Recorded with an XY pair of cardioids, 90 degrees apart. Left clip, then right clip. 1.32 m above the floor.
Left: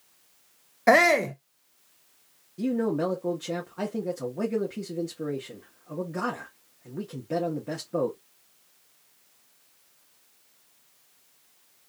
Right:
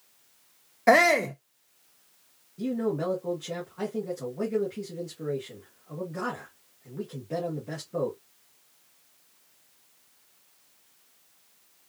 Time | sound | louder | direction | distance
0.9 | a shout | left 1 dB | 5° left | 0.5 m
2.6 | a man speaking | left 2 dB | 40° left | 1.9 m